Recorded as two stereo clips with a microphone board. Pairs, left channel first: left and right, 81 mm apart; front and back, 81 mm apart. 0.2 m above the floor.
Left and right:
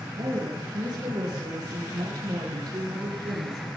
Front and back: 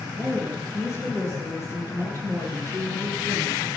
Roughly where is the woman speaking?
Behind right.